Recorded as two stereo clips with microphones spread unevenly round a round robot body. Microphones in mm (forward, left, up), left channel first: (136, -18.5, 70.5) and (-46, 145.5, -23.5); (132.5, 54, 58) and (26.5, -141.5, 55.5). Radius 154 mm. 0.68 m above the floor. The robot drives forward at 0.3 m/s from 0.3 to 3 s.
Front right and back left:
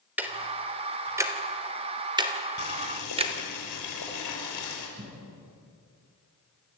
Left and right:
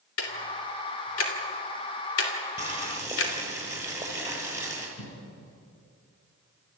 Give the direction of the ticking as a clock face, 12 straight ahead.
10 o'clock.